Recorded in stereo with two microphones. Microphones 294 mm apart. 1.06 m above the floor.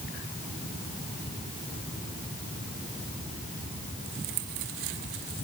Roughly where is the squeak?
No squeak in this recording.